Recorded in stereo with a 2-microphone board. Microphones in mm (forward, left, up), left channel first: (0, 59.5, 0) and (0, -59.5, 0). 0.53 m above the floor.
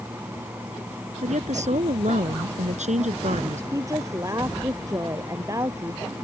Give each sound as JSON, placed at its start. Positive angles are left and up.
{"t": 1.2, "sound": "a woman speaking", "side_deg": -80}
{"t": 3.7, "sound": "a woman speaking", "side_deg": -25}